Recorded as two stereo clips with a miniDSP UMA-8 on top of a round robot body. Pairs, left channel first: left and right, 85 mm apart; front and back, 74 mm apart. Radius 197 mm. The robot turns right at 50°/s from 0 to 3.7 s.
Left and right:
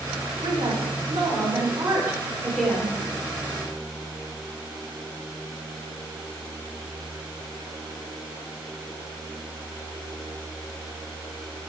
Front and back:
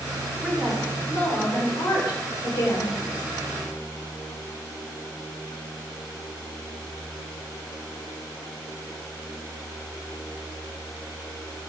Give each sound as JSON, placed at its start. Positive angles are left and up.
{"t": 0.4, "sound": "a woman speaking", "azimuth_deg": -105, "distance_m": 4.5}